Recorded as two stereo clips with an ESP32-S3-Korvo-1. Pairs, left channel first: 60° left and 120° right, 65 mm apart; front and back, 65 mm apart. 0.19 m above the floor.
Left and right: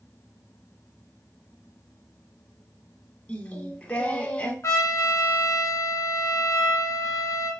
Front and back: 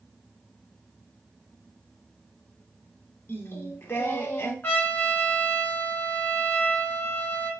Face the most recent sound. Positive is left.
turn(degrees=50)